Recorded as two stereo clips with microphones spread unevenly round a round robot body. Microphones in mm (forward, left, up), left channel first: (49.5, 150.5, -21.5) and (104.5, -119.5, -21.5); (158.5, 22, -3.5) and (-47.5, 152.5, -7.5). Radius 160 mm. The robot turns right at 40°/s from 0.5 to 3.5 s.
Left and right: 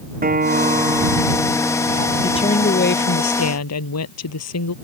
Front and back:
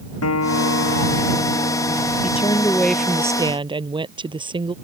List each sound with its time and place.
0.2 s a guitar: 20° right; by 3.2 s 85° left
2.2 s a woman speaking: 30° left; by 4.7 s 80° left